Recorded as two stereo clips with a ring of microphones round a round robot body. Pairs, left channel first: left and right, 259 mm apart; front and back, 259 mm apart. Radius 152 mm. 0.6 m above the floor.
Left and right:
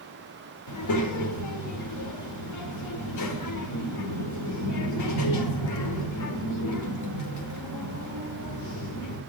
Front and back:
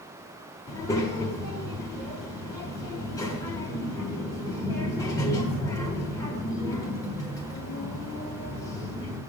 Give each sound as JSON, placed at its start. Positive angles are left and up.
{"t": 0.7, "sound": "a child speaking", "azimuth_deg": 80, "distance_m": 1.2}